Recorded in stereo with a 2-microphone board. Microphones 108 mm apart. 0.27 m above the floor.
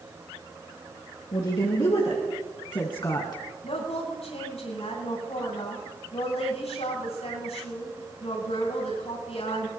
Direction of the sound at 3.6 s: 75° left (ahead or behind).